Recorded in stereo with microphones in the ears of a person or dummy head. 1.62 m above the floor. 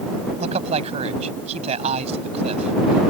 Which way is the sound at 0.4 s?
35° right (ahead or behind).